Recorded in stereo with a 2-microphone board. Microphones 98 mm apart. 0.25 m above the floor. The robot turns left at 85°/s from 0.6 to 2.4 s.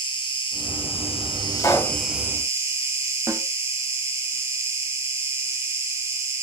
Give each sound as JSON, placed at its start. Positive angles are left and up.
{"t": 0.0, "sound": "an insect", "azimuth_deg": 120, "distance_m": 1.2}
{"t": 1.6, "sound": "a pop", "azimuth_deg": 120, "distance_m": 1.1}
{"t": 3.3, "sound": "a snare drum", "side_deg": -30, "distance_m": 1.2}